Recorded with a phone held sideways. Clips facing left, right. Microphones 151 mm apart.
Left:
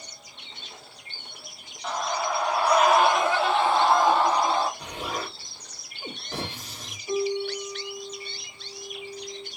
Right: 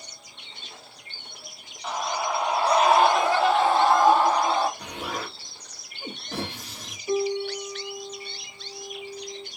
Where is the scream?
5° right (ahead or behind), 0.9 m; by 4.7 s 50° right (ahead or behind), 1.9 m.